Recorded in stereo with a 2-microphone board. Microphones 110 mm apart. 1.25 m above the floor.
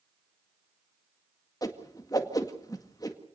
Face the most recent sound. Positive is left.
turn(degrees=35)  # may be behind; listen again after turning